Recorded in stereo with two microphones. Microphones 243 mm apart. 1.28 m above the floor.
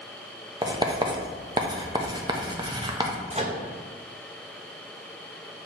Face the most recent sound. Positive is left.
turn(degrees=-25)  # may be behind; listen again after turning